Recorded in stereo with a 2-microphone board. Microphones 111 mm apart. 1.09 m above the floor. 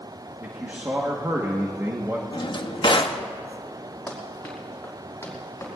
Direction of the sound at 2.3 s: 45° left (ahead or behind).